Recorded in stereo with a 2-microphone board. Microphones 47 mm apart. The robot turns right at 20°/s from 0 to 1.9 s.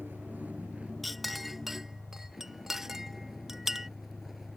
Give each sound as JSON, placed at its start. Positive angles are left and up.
{"t": 0.0, "sound": "a vehicle", "azimuth_deg": -45}
{"t": 1.0, "sound": "a clink", "side_deg": 5}